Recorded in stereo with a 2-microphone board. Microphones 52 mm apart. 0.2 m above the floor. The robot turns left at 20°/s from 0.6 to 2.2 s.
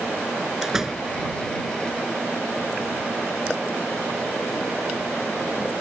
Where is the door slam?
5° right (ahead or behind); by 1.1 s 15° right (ahead or behind).